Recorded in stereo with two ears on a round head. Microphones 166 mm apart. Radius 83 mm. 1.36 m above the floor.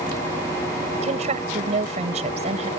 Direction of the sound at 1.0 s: 35° right (ahead or behind).